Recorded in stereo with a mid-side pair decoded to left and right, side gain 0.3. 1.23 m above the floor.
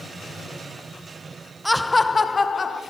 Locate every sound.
1.6 s laughter: straight ahead, 0.5 m; by 2.8 s 55° left, 1.5 m